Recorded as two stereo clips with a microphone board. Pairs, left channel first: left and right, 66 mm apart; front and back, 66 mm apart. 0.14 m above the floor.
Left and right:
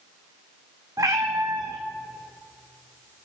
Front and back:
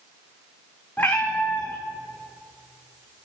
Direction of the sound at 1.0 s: 60° right.